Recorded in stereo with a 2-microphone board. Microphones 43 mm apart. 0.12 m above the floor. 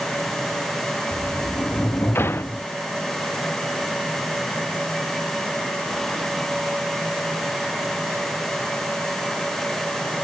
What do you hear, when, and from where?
1.1 s a sliding door: 60° left (ahead or behind)